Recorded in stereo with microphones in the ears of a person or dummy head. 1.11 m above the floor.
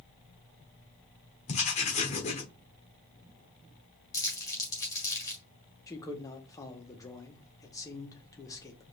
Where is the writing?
30° left (ahead or behind), 1.0 m.